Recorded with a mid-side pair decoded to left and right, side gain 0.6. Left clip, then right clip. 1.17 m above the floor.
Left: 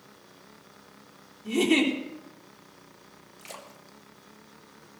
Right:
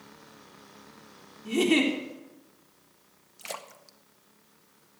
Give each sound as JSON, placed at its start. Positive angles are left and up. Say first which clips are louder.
{"t": 1.4, "sound": "a giggle", "louder": "even", "azimuth_deg": 5, "distance_m": 3.5}
{"t": 3.4, "sound": "a splash", "louder": "right 5 dB", "azimuth_deg": -30, "distance_m": 1.6}